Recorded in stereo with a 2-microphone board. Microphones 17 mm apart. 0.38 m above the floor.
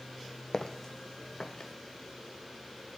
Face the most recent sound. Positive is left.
turn(degrees=35)  # may be behind; listen again after turning